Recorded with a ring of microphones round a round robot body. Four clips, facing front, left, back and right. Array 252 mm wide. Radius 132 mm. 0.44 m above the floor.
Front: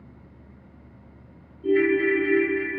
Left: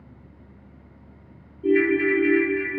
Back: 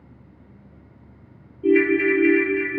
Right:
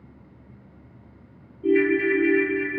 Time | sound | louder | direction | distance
1.6 | a ringtone | even, back 3 dB | straight behind | 0.7 m